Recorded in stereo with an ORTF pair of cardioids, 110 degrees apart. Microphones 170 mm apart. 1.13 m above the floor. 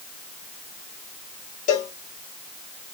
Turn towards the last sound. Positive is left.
turn(degrees=45)